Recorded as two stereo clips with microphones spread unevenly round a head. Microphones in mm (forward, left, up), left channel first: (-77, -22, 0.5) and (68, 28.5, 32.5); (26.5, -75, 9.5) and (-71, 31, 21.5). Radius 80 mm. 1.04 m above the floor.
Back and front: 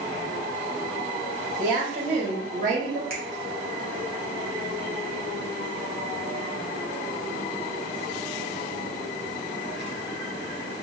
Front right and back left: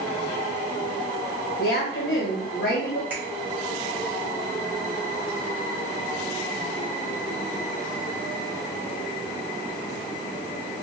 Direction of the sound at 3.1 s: 55° left.